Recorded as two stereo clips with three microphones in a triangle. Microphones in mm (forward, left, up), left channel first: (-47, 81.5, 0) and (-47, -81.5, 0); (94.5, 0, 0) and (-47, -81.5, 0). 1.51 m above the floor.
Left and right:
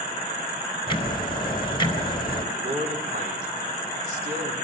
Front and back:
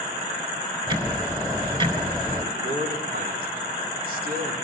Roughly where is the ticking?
Behind left.